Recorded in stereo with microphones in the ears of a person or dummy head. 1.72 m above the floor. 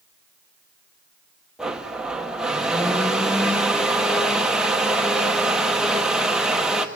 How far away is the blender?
About 1.1 m.